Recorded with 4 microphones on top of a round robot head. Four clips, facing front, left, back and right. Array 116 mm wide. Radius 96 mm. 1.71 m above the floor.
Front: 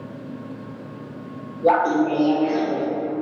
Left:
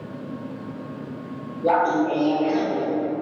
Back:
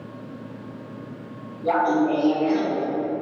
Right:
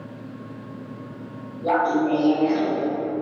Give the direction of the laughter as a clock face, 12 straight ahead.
12 o'clock.